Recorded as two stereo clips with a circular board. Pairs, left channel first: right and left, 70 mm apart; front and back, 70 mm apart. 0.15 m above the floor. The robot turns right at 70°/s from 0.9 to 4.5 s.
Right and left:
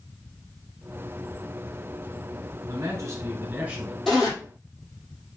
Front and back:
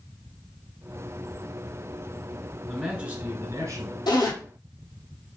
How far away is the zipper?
About 1.9 m.